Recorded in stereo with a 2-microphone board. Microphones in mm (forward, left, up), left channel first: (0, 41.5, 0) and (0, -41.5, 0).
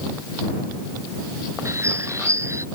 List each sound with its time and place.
1.6 s a bird: 35° right (ahead or behind)